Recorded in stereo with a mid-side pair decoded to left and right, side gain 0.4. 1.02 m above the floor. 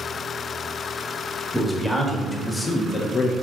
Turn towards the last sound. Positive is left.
turn(degrees=65)